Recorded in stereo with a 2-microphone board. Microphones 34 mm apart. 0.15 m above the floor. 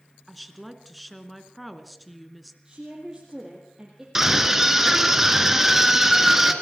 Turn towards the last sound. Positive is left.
turn(degrees=-10)  # may be behind; listen again after turning